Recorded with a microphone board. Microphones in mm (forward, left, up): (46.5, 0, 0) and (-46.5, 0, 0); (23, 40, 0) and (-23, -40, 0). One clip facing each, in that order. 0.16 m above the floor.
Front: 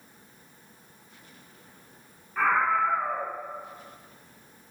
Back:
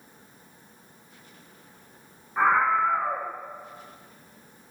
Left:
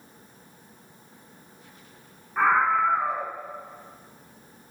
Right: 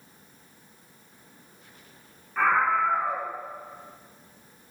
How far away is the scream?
About 2 m.